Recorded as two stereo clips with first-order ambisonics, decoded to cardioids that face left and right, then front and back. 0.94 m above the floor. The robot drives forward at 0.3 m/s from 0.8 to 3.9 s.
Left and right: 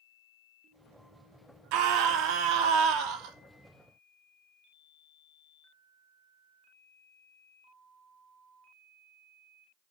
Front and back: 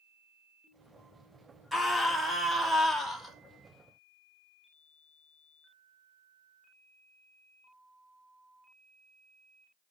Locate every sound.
1.7 s a scream: 95° right, 2.5 m; by 3.4 s 105° right, 2.5 m